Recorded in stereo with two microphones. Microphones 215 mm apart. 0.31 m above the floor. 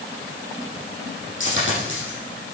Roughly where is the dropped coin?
Left.